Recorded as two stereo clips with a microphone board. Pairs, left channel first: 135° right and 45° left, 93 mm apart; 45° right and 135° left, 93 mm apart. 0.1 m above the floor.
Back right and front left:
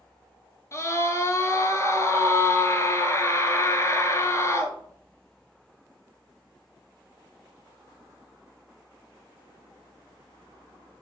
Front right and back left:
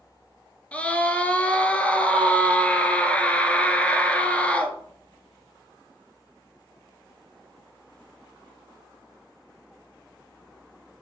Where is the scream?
110° right, 1.6 m.